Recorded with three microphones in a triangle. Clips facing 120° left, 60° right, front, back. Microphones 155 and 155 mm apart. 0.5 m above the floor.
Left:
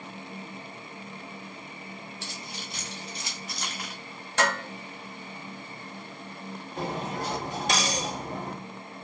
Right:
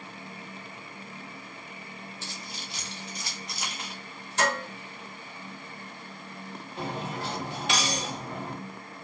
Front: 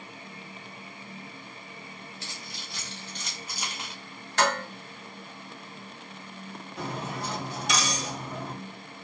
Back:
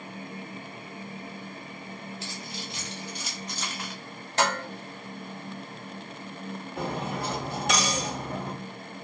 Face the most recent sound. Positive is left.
turn(degrees=165)